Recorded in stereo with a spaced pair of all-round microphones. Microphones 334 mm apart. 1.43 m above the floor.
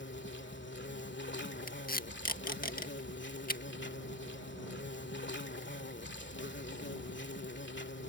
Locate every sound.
0.0 s an insect: 35° left (ahead or behind)
1.7 s tape being pulled: 25° left (ahead or behind)